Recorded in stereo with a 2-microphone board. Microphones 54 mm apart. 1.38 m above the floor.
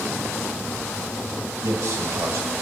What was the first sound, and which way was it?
A man speaking, 80° right.